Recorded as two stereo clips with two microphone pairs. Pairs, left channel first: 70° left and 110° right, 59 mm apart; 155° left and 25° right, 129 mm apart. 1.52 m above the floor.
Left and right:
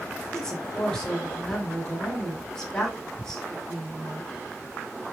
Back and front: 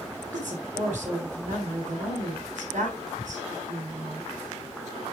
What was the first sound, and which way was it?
A woman speaking, 15° right.